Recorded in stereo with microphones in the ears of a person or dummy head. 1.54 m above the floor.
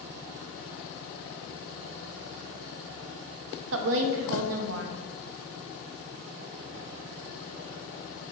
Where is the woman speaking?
75° right (ahead or behind), 0.6 m.